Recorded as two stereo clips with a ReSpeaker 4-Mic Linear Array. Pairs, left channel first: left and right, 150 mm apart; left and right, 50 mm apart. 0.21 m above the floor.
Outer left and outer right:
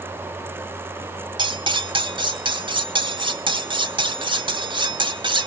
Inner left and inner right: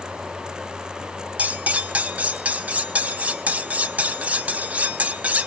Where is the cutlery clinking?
30° right (ahead or behind), 0.8 m.